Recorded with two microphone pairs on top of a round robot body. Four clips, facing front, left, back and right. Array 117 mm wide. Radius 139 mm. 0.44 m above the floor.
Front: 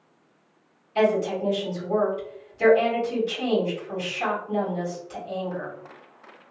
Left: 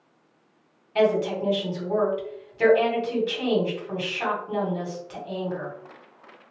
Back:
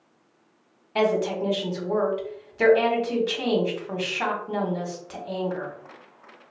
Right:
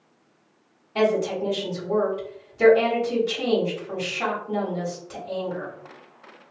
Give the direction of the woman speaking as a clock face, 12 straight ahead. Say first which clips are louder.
Even, front 1 dB; 6 o'clock.